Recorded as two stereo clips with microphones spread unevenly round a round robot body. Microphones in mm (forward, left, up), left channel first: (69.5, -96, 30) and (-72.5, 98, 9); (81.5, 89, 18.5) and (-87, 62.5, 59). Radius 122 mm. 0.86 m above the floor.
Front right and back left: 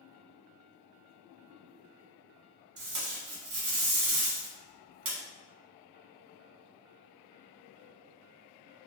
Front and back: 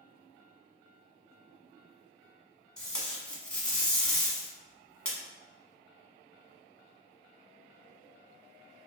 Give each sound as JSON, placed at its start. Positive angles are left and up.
{"t": 2.8, "sound": "tape being pulled", "azimuth_deg": 105, "distance_m": 1.1}